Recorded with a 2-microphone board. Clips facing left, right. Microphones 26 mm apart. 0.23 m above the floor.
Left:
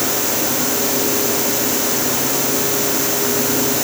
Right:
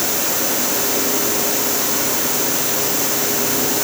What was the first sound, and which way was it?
Only background noise.